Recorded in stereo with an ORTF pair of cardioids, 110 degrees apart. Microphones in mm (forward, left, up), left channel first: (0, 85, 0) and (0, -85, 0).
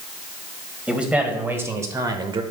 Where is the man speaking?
5° right, 1.9 m; by 2.4 s 35° right, 1.1 m.